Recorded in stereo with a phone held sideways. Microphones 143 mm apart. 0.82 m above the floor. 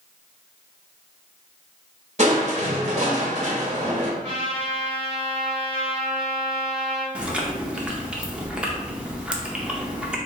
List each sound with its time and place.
2.2 s crushing: 50° right (ahead or behind), 1.0 m
4.2 s a trumpet: 35° right (ahead or behind), 1.9 m
7.2 s chewing: 10° right (ahead or behind), 0.6 m